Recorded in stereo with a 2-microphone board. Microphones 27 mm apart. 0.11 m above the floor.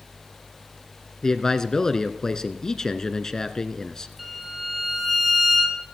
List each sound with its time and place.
1.2 s a man speaking: 20° left (ahead or behind), 1.1 m
4.2 s a violin: centre (ahead or behind), 3 m